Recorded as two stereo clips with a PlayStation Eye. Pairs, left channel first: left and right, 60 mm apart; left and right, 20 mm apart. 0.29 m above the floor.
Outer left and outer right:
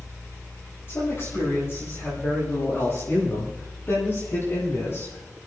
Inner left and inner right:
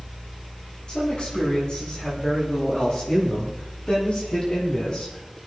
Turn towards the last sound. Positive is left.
turn(degrees=40)  # may be behind; listen again after turning